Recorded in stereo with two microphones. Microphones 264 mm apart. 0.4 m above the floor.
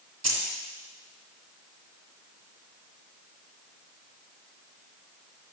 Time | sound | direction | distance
0.2 | keys jangling | 75° right (ahead or behind) | 1.7 m